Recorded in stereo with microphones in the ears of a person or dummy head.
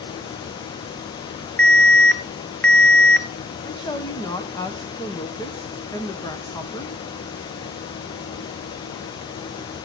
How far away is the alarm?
About 1.0 m.